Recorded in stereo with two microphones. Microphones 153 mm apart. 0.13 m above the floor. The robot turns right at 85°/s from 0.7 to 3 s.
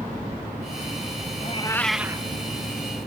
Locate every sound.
1.4 s a cat meowing: 135° left; by 2.3 s 150° right